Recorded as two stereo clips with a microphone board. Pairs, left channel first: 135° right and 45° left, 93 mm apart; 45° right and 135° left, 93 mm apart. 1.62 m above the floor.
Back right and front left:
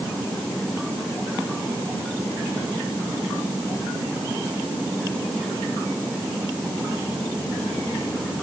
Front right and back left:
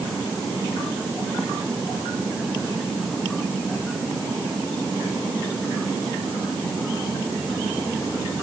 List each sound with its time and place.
Only background noise.